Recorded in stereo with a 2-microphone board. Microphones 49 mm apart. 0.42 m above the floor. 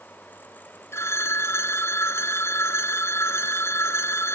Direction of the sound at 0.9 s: 65° left (ahead or behind).